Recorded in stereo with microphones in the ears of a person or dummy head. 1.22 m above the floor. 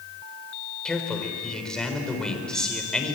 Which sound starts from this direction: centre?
A man speaking, at 0.8 s.